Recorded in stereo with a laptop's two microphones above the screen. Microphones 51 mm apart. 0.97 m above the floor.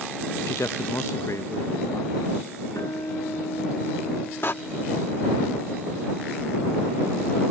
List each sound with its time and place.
0.5 s a man speaking: 65° left (ahead or behind)
2.8 s a guitar: 80° left
4.4 s a door slam: 45° left (ahead or behind)